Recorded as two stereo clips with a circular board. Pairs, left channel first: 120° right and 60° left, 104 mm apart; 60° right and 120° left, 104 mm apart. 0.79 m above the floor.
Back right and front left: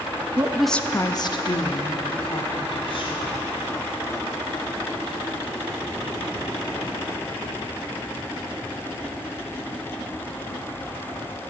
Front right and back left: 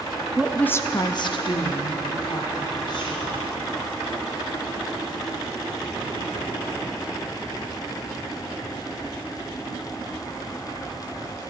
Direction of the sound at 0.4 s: 55° left.